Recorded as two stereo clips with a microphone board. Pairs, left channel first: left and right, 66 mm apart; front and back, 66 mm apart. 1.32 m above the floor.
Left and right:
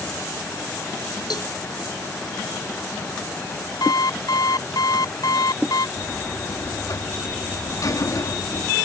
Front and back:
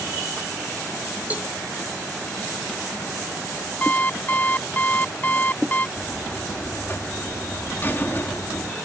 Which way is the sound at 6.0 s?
55° left.